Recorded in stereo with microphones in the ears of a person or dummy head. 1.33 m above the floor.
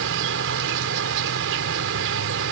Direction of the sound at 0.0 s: 65° right (ahead or behind).